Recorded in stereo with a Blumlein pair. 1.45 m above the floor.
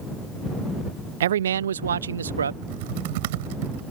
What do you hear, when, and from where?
1.2 s a man speaking: 60° right; by 2.5 s 70° right
2.6 s typing on a keyboard: 50° right